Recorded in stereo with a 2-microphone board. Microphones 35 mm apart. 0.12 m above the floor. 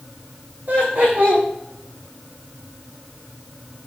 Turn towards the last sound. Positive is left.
turn(degrees=-75)  # may be behind; listen again after turning